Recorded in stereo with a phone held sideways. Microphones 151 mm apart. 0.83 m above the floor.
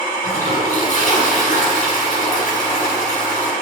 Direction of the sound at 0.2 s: 55° left (ahead or behind).